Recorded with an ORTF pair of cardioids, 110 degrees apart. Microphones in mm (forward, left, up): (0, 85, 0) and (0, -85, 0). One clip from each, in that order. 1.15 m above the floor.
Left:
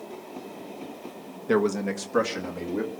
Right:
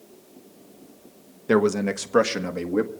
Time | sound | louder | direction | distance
1.5 | a man speaking | right 3 dB | 20° right | 1.2 m